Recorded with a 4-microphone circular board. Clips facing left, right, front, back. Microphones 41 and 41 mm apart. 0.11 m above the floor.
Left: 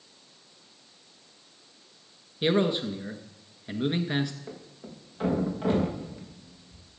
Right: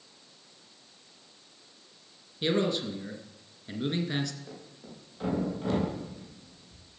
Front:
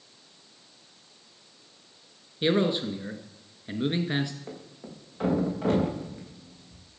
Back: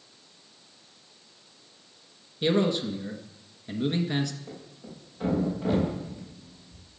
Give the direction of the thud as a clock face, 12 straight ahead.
11 o'clock.